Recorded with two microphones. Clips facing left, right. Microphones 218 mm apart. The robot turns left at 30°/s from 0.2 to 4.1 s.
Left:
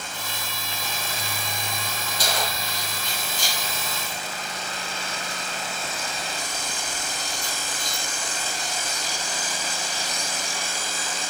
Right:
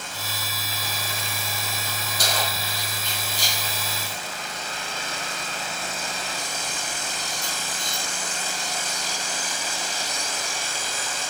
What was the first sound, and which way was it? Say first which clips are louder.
Keys jangling: even; 75° right (ahead or behind).